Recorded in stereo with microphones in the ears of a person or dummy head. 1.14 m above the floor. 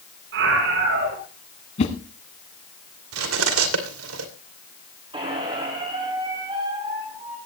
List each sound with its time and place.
0.3 s a scream: 65° right (ahead or behind), 9 m
1.8 s a whoosh: 40° left (ahead or behind), 2.5 m
3.1 s cutlery clinking: 80° right, 2.5 m
5.1 s a squeak: 25° right (ahead or behind), 4 m